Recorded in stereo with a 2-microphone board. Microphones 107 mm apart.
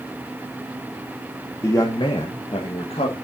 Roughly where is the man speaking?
Left.